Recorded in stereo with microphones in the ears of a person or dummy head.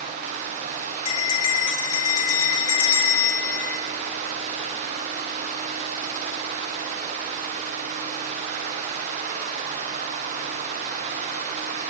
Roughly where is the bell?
Left.